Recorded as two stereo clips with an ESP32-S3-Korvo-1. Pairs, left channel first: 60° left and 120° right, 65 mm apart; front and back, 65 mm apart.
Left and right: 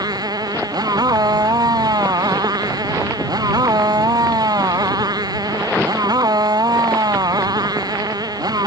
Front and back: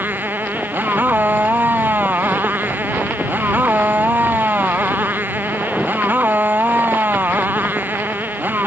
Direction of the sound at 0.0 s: 120° right.